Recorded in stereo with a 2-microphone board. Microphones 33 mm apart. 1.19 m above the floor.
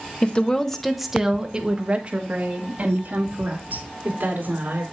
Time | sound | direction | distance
0.2 | a woman speaking | 35° left (ahead or behind) | 1.0 m